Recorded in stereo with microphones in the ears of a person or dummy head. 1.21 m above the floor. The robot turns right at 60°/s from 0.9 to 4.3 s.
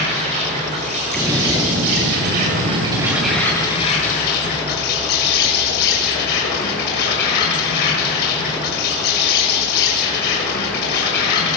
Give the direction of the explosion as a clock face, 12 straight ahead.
6 o'clock.